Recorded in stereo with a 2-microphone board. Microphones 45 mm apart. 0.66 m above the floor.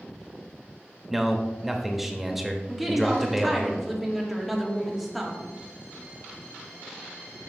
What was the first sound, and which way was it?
A man speaking, 5° right (ahead or behind).